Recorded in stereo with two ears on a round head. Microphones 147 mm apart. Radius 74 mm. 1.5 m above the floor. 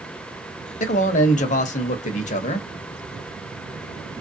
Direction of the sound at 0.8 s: 45° left (ahead or behind).